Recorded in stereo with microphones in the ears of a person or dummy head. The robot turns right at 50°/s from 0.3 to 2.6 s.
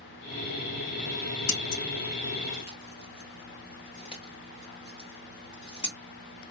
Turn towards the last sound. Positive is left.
turn(degrees=30)  # may be behind; listen again after turning